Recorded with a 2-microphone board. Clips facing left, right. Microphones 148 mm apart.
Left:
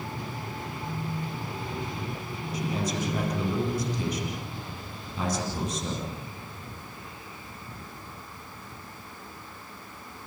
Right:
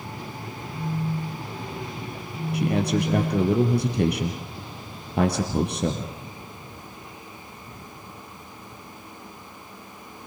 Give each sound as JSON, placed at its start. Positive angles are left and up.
{"t": 0.7, "sound": "a phone buzzing", "side_deg": -70, "distance_m": 2.0}
{"t": 2.5, "sound": "a man speaking", "side_deg": -65, "distance_m": 2.5}